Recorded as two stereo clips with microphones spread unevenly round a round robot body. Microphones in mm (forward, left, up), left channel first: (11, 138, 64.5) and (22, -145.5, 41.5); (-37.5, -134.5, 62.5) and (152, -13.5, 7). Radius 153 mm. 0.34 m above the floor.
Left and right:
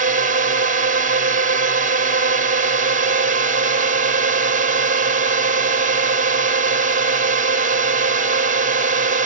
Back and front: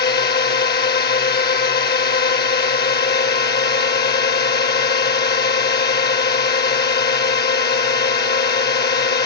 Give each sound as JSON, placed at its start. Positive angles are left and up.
{"t": 0.0, "sound": "a drone", "azimuth_deg": -115}